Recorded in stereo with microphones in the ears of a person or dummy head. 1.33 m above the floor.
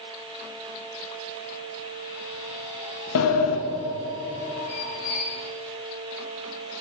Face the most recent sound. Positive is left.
turn(degrees=65)  # may be behind; listen again after turning